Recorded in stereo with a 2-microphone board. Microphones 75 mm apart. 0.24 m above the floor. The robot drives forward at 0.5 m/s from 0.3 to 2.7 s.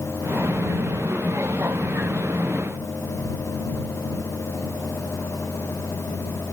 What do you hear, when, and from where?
Only background noise.